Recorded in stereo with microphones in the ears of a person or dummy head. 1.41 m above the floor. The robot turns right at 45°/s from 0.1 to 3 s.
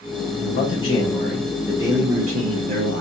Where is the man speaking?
130° left, 0.9 m; by 3.0 s 110° right, 0.9 m.